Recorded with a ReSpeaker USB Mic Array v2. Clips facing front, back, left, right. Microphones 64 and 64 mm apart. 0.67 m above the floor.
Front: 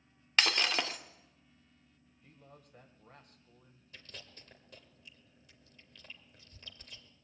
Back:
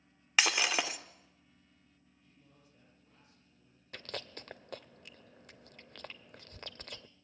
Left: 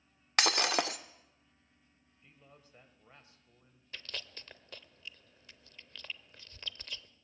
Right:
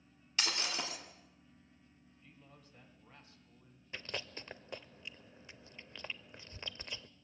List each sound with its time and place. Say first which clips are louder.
0.4 s breaking glass: back 1 dB, left 8 dB; 95° left, 1.2 m
2.2 s a man speaking: front 8 dB, left 1 dB; 25° left, 3 m
3.9 s chewing: back 10 dB, right 3 dB; 155° right, 0.7 m